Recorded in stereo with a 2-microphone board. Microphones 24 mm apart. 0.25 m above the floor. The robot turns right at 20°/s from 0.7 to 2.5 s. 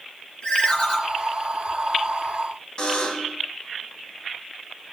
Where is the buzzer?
35° left (ahead or behind), 0.8 m.